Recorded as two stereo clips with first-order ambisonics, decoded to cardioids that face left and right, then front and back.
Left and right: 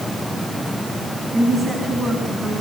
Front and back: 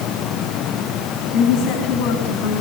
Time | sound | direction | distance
1.3 | a woman speaking | 20° right | 4 m